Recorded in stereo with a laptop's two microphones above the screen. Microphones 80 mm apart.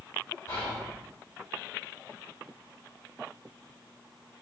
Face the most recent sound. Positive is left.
turn(degrees=35)  # may be behind; listen again after turning